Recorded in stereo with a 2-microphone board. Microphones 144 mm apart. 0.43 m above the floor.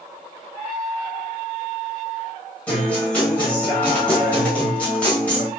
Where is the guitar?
10° left (ahead or behind), 1.4 m.